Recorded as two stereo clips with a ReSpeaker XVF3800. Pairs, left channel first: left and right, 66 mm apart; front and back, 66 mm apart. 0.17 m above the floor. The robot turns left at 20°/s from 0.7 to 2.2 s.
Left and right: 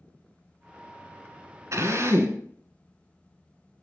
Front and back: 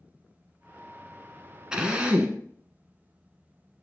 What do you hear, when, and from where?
1.7 s a drill: 105° right, 0.9 m; by 2.4 s 115° right, 0.9 m